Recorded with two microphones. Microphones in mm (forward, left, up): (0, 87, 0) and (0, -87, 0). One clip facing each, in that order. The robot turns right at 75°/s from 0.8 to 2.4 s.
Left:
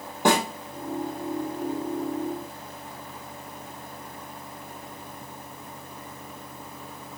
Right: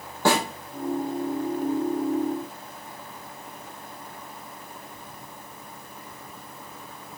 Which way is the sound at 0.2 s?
20° left (ahead or behind).